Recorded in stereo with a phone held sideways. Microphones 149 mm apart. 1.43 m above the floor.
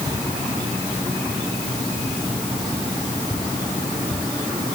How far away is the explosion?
I don't hear an explosion.